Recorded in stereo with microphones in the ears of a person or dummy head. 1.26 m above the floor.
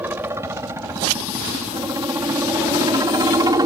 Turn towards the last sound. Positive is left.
turn(degrees=-15)  # may be behind; listen again after turning